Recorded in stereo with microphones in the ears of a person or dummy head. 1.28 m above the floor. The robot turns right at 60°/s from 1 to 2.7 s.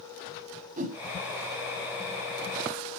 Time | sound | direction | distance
0.8 | a whoosh | 35° right (ahead or behind) | 1.4 m